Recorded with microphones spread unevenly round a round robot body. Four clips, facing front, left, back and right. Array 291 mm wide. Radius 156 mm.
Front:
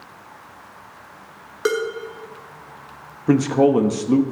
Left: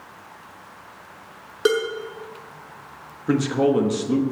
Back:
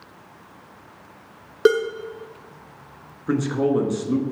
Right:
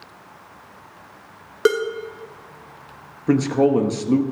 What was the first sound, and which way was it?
Dishes clattering, 160° right.